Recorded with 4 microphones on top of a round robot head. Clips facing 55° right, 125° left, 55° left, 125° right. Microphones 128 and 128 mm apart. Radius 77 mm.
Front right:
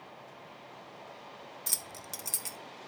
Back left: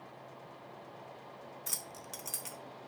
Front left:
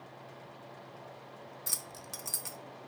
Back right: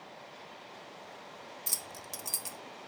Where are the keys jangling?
70° right, 0.6 m.